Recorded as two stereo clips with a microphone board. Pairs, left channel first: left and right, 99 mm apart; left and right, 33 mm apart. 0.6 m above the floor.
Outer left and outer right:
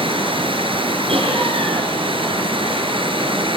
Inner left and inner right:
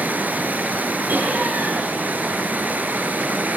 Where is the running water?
65° right (ahead or behind), 2.5 m.